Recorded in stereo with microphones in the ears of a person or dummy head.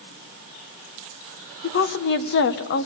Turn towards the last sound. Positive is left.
turn(degrees=65)  # may be behind; listen again after turning